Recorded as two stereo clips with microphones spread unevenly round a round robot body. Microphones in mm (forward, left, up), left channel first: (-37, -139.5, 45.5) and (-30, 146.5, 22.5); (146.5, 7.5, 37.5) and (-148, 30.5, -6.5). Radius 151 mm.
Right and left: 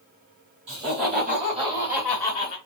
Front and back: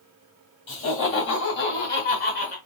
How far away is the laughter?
About 2.5 m.